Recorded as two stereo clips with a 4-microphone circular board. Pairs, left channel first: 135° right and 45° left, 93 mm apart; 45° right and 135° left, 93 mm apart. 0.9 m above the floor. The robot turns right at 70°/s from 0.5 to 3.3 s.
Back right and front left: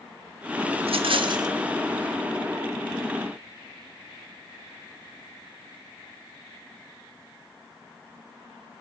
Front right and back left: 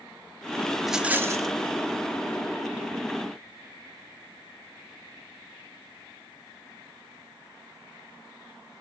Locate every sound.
0.8 s a rattle: 45° left, 0.9 m; by 1.5 s 90° left, 0.9 m